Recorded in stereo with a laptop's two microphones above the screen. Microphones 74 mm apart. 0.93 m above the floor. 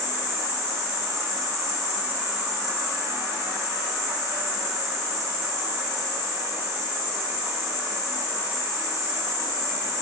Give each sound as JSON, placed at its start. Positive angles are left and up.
{"t": 0.0, "sound": "an insect", "side_deg": -35, "distance_m": 0.8}